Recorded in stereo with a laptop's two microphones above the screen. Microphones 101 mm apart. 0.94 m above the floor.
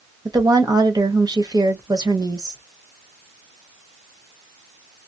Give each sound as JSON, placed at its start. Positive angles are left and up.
{"t": 0.2, "sound": "a woman speaking", "side_deg": -40, "distance_m": 1.1}